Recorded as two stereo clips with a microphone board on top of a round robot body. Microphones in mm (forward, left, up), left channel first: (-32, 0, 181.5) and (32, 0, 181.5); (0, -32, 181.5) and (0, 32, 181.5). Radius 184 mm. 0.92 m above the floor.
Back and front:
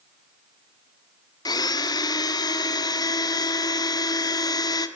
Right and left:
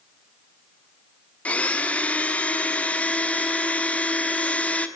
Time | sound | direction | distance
1.4 | a blender | 160° right | 1.3 m